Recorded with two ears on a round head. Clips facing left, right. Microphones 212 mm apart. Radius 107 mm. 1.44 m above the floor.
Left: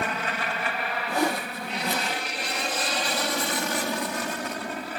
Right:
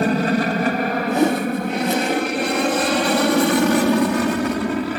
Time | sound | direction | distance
0.0 | an aircraft | 35° right (ahead or behind) | ?
1.1 | a whoosh | 20° right (ahead or behind) | ?